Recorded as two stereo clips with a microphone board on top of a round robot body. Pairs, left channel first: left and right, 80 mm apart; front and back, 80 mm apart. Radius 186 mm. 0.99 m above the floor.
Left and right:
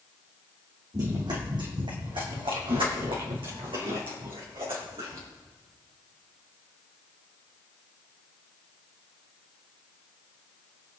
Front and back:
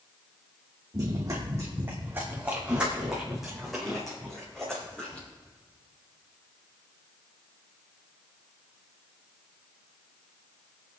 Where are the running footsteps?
135° right, 3 m; by 5.3 s 75° right, 4 m.